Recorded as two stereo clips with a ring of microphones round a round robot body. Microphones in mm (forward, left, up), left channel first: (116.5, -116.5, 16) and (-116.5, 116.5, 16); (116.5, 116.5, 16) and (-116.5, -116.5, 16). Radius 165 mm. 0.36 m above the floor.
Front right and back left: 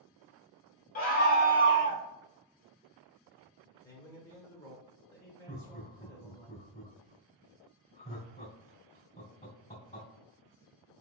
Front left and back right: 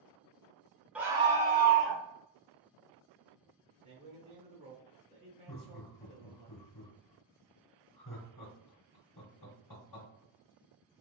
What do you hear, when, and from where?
0.9 s a scream: 55° right, 1.0 m; by 2.0 s 100° right, 1.3 m
3.8 s a man speaking: 105° right, 1.0 m
5.5 s laughter: 25° left, 1.7 m